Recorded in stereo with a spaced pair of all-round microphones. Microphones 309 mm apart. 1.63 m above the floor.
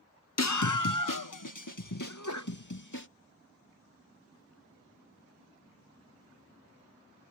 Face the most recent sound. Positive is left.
turn(degrees=65)  # may be behind; listen again after turning